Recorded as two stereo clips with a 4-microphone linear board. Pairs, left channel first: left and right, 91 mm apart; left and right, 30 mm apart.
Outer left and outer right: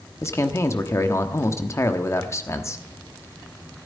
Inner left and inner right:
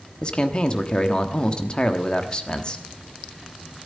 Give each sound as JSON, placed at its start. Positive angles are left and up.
{"t": 0.2, "sound": "a man speaking", "side_deg": 30, "distance_m": 1.0}